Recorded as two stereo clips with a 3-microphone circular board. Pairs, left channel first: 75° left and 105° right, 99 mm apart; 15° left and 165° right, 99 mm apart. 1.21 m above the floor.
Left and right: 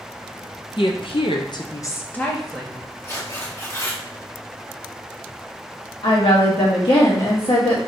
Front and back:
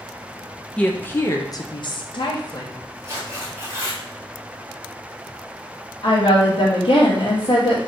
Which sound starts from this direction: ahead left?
A woman speaking, at 6.0 s.